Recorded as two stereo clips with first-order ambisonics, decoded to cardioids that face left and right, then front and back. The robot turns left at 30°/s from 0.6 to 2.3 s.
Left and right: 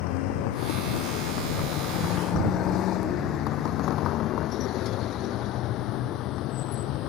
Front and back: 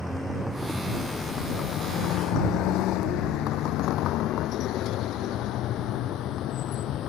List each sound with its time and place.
0.0 s a vehicle: 90° left; by 7.1 s 50° left